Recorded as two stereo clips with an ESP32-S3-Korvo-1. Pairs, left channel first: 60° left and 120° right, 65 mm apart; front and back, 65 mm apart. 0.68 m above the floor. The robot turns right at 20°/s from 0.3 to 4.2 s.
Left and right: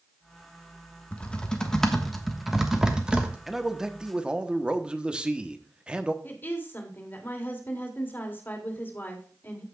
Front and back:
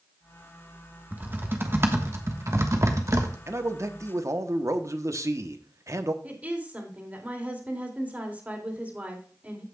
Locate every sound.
1.1 s typing on a keyboard: 130° left, 1.2 m; by 3.4 s 175° left, 1.2 m
3.5 s a man speaking: 155° left, 0.9 m; by 6.1 s 170° left, 0.9 m
6.2 s a woman speaking: 115° left, 2.5 m